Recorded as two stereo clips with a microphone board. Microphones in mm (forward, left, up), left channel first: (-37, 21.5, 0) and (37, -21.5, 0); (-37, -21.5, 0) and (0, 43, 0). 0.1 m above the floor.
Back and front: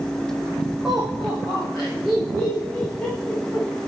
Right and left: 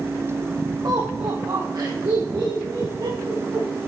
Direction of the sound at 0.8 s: 55° left.